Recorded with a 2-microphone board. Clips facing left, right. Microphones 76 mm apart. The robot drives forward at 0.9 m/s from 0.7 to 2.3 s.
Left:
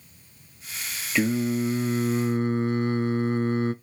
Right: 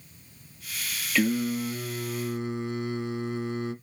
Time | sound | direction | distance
1.1 | singing | 20° left (ahead or behind) | 1.0 m